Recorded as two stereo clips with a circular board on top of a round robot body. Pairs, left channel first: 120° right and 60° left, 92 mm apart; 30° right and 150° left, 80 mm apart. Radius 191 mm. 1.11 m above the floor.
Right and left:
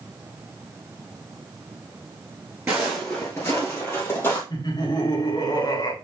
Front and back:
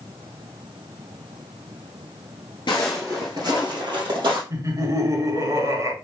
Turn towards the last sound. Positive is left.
turn(degrees=-165)